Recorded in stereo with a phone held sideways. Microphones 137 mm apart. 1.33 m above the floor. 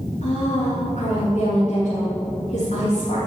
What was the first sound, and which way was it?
A woman speaking, 65° left (ahead or behind).